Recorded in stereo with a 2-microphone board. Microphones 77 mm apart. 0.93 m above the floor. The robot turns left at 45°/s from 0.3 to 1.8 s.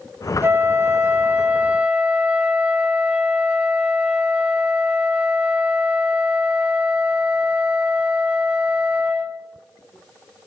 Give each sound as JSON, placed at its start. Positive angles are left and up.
{"t": 0.4, "sound": "a flute", "side_deg": -25, "distance_m": 0.8}